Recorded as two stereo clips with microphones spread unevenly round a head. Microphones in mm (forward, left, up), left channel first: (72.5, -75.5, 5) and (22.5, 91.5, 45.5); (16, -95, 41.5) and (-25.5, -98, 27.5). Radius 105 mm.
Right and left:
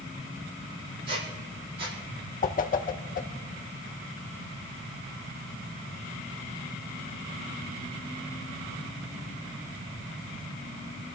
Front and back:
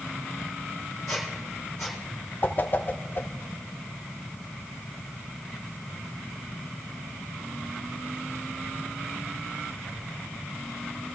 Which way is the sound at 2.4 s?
25° right.